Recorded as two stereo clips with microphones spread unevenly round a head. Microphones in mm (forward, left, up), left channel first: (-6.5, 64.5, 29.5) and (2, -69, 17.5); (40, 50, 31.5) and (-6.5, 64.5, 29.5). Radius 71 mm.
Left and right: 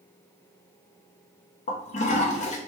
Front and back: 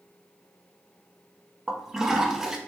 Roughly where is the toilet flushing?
Left.